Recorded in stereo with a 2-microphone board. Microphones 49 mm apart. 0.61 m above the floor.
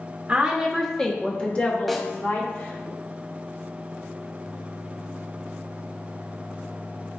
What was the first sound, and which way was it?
A woman speaking, 15° right (ahead or behind).